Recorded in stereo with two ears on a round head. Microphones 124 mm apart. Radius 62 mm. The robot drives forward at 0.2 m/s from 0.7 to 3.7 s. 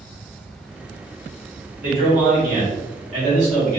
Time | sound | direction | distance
1.8 | a man speaking | 65° right (ahead or behind) | 1.3 m